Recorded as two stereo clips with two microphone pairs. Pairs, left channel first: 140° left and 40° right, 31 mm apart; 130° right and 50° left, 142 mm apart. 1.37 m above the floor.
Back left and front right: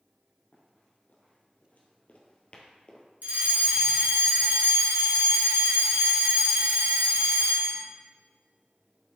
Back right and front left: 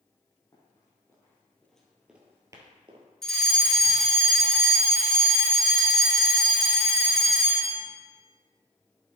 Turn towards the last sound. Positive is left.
turn(degrees=-45)